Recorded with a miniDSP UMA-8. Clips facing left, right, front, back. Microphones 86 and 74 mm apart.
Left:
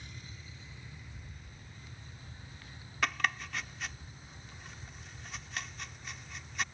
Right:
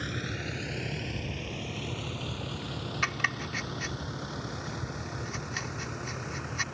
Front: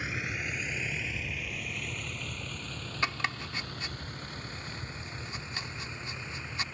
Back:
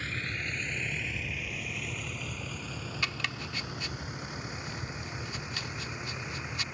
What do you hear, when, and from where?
0.0 s a vehicle: 75° right; by 6.7 s 105° right
3.0 s chopping: 10° right